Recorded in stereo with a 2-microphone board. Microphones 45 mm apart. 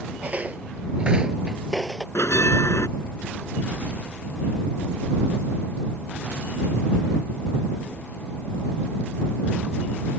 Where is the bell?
75° left (ahead or behind).